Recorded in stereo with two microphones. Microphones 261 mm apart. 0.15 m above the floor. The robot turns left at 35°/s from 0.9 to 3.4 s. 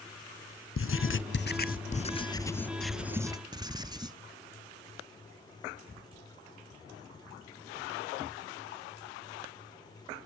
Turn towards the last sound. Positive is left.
turn(degrees=-20)